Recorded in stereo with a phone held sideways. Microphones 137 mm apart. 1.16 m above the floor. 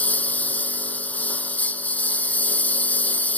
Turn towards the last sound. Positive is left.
turn(degrees=10)  # may be behind; listen again after turning